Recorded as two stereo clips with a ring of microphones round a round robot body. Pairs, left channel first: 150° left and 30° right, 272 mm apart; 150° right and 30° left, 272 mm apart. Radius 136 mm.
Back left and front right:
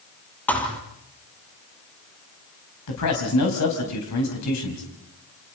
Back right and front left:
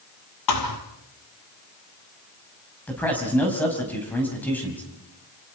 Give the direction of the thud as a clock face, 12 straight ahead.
4 o'clock.